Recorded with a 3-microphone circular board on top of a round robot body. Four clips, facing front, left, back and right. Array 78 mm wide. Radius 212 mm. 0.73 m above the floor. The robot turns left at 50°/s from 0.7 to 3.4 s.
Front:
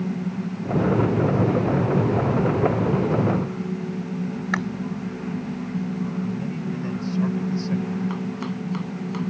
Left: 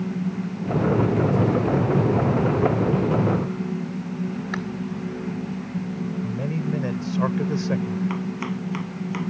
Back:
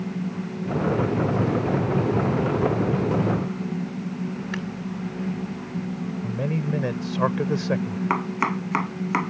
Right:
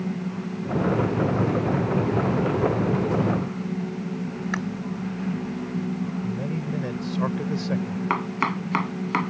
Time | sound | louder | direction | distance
4.5 | chewing | right 2 dB, front 9 dB | 10° right | ?
6.2 | a man speaking | left 2 dB, back 1 dB | 170° left | ?
8.1 | chopping | right 3 dB, back 4 dB | 145° right | ?